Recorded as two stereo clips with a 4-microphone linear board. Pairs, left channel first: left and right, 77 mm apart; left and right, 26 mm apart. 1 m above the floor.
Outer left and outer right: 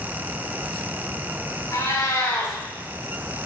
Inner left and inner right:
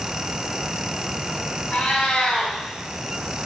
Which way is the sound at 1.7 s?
45° left (ahead or behind).